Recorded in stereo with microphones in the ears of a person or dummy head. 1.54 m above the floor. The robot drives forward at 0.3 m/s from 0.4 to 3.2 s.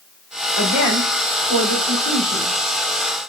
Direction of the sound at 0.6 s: 55° left (ahead or behind).